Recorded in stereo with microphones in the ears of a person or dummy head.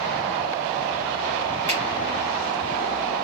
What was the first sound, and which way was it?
A finger snap, 25° left (ahead or behind).